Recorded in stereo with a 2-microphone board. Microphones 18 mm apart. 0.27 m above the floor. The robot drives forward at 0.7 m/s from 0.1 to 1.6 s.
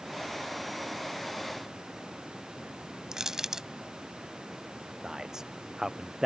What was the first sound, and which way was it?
Crushing, 35° right (ahead or behind).